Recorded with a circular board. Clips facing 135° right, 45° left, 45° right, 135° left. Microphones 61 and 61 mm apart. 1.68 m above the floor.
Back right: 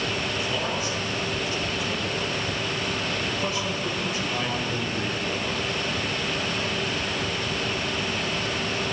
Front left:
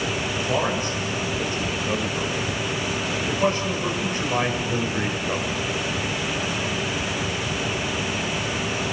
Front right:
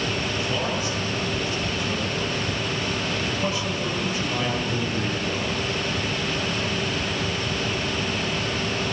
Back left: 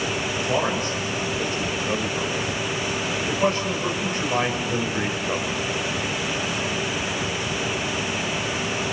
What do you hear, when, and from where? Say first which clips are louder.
0.3 s a man speaking: front left 4 dB, back left 3 dB; 95° left, 6 m